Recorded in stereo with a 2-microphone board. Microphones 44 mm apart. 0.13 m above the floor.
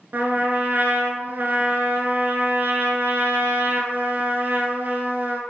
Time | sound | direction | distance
0.1 | a trumpet | 50° right (ahead or behind) | 0.7 m